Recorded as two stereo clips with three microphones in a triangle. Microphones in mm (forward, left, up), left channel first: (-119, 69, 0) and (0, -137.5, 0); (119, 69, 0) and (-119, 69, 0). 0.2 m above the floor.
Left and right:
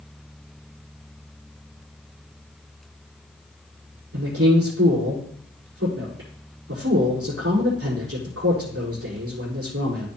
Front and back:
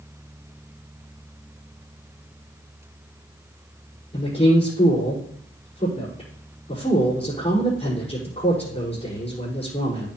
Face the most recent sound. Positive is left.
turn(degrees=-60)